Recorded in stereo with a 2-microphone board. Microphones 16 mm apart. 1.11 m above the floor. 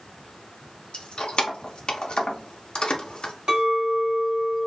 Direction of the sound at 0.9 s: 70° left (ahead or behind).